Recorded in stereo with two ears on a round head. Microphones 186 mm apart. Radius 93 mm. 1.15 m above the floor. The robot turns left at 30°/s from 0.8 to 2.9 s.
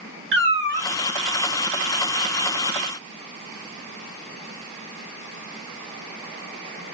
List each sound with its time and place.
0.3 s a cat meowing: 55° right (ahead or behind), 1.5 m